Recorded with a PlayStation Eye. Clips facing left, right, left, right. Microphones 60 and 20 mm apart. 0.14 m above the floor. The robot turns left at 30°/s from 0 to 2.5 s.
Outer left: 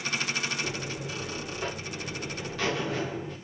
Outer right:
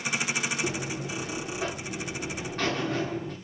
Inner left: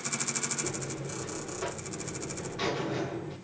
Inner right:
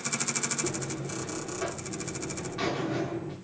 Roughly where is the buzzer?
Right.